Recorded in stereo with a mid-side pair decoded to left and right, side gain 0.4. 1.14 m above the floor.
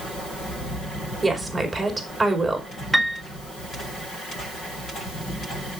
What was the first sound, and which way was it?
A woman speaking, 25° right.